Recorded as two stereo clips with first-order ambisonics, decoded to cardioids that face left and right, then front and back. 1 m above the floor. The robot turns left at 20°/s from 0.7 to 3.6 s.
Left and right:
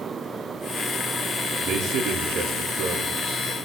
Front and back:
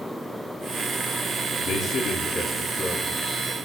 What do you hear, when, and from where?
1.6 s a man speaking: 50° right, 1.7 m; by 3.4 s 85° right, 1.7 m